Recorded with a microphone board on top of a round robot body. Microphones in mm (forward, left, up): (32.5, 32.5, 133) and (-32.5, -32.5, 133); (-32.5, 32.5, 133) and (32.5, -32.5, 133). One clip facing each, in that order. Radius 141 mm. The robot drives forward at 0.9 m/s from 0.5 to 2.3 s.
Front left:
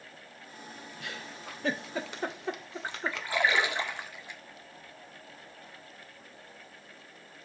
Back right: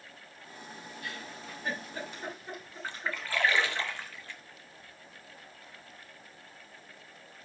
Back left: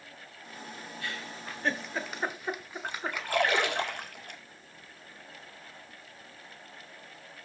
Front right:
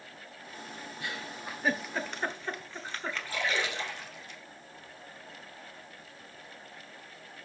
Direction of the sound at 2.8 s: 115° left.